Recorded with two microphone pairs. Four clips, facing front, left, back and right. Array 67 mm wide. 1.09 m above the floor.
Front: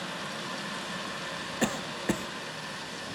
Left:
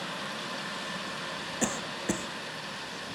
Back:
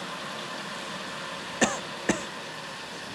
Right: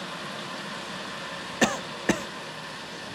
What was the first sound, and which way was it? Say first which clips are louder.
A cough: right 8 dB, back 4 dB; 125° right.